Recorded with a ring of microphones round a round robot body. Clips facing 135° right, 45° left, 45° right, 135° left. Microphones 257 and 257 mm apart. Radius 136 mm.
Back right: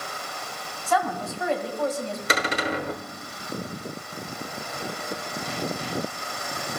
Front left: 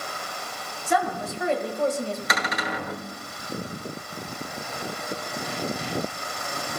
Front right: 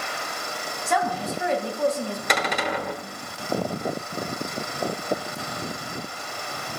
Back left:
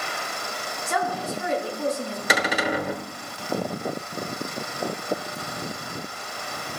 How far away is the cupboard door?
About 1.0 m.